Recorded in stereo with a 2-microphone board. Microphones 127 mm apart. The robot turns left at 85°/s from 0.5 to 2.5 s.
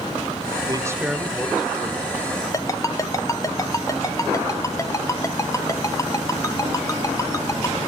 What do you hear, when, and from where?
0.7 s a man speaking: 140° right, 1.6 m; by 2.4 s 75° left, 1.6 m
2.5 s a ringtone: 25° left (ahead or behind), 0.7 m